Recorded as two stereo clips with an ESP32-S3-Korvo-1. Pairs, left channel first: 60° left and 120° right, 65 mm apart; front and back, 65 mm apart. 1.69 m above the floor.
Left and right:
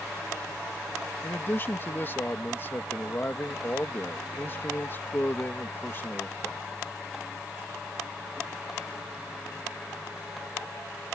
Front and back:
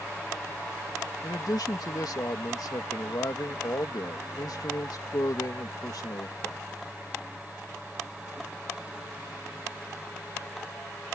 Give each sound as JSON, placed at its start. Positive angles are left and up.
{"t": 1.2, "sound": "a man speaking", "azimuth_deg": 5}